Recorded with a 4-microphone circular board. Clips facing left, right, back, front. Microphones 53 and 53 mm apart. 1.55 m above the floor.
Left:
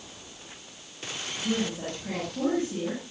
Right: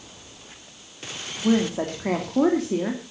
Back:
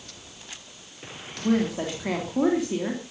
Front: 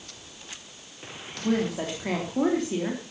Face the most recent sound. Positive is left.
turn(degrees=-95)